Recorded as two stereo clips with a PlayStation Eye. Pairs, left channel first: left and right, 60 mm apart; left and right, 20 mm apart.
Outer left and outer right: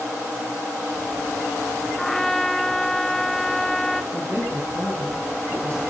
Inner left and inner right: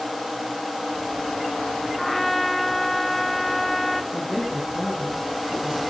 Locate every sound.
2.0 s a trumpet: 5° left (ahead or behind), 0.9 m
4.1 s a woman speaking: 50° right (ahead or behind), 7.5 m